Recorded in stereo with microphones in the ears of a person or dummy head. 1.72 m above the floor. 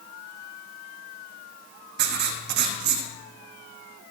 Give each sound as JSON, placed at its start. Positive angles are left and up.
{"t": 2.0, "sound": "writing", "side_deg": -60, "distance_m": 1.0}